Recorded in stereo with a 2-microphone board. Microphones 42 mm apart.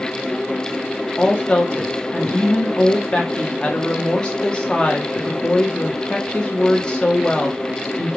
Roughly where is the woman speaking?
Left.